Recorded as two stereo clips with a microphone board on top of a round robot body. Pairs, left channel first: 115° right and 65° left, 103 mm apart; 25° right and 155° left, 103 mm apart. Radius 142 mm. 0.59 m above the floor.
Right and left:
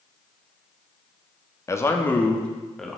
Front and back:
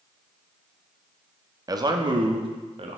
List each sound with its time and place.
1.7 s a man speaking: 165° right, 1.5 m; by 3.0 s 160° left, 2 m